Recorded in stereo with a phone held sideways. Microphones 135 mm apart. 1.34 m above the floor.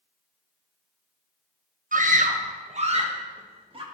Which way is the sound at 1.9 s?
70° right (ahead or behind).